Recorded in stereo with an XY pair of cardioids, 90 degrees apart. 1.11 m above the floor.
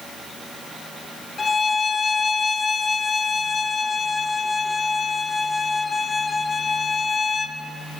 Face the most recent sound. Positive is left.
turn(degrees=35)